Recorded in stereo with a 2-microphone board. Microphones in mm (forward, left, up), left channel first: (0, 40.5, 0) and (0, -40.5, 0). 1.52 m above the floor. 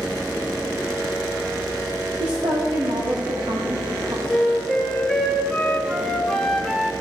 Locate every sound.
2.2 s a woman speaking: 65° right (ahead or behind), 1.5 m; by 4.2 s 55° right (ahead or behind), 1.5 m
4.3 s a flute: 5° left (ahead or behind), 1.5 m